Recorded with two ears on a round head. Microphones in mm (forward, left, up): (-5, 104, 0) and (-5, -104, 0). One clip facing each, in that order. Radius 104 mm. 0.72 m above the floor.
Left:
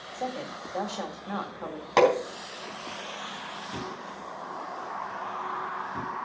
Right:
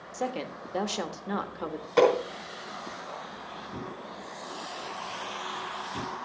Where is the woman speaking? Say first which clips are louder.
Right 2 dB; 40° right (ahead or behind), 1.3 m.